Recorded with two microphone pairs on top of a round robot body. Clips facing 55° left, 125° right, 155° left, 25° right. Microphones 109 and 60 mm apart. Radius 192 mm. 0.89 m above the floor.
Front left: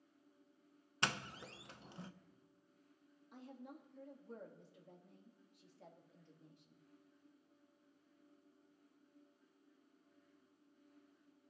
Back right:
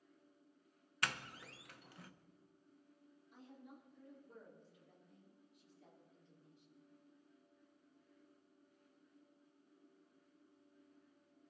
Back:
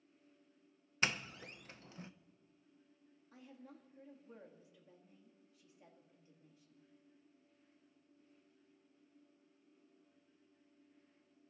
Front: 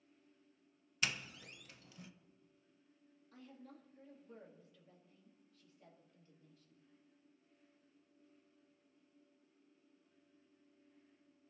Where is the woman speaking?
80° left, 2 m.